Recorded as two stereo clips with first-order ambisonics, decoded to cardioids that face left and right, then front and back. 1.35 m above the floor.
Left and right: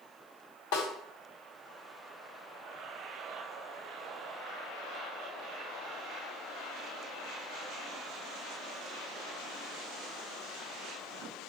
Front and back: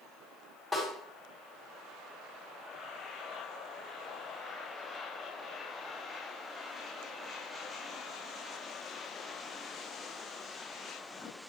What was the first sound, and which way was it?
A snare drum, 95° left.